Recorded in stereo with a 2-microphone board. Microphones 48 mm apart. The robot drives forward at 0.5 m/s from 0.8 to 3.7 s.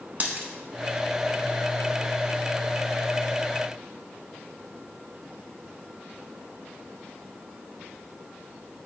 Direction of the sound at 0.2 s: 35° right (ahead or behind).